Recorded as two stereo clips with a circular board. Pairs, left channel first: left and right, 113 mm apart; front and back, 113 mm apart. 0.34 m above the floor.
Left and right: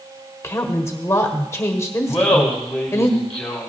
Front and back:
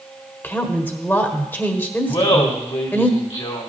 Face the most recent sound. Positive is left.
turn(degrees=10)